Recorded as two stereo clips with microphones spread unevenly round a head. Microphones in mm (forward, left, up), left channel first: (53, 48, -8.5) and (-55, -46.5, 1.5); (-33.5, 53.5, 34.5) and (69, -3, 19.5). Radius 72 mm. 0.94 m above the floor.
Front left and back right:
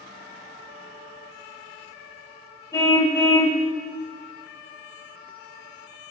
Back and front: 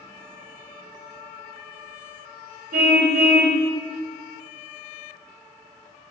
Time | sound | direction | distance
2.7 | a car horn | 30° right | 2.5 m